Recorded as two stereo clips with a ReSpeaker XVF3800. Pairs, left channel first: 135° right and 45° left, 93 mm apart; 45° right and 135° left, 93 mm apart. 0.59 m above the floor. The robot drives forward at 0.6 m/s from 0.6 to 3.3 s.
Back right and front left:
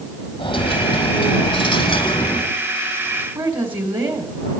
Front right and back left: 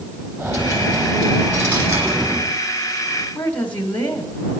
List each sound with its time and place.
0.4 s a dropped coin: 165° right, 3.5 m
3.4 s a woman speaking: 25° left, 2 m